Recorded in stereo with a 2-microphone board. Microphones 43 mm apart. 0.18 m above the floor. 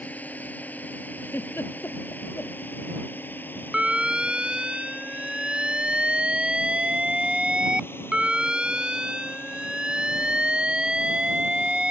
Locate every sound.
0.0 s a drone: 35° left (ahead or behind); by 11.9 s 60° left (ahead or behind)
1.2 s a giggle: 70° left (ahead or behind)
3.7 s an alarm: 20° right (ahead or behind)